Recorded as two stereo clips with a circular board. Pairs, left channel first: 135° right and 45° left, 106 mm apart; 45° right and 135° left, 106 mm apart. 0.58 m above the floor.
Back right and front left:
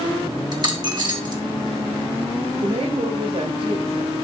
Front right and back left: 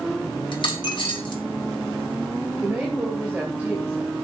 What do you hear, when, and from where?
0.5 s a dropped coin: straight ahead, 2.5 m
2.6 s a woman speaking: 60° left, 2 m